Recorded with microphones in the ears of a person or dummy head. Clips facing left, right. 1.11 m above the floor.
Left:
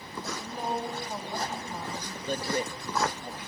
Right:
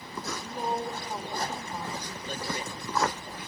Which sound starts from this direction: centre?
A woman speaking, at 0.2 s.